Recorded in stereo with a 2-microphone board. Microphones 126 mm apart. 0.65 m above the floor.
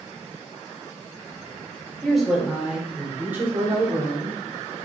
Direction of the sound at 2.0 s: Centre (ahead or behind).